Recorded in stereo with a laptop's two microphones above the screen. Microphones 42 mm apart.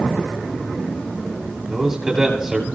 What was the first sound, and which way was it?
A man speaking, 5° right (ahead or behind).